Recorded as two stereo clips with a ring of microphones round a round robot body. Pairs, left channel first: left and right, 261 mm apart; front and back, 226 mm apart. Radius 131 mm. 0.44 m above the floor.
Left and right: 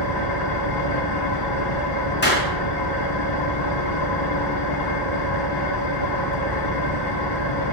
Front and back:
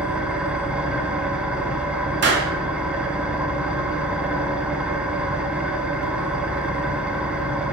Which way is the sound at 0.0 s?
95° left.